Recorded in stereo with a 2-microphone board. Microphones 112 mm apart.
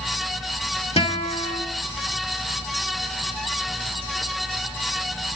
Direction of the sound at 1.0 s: 65° left (ahead or behind).